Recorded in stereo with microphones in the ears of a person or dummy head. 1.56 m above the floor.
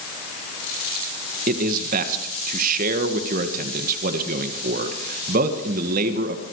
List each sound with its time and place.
1.5 s a man speaking: 45° right (ahead or behind), 1.7 m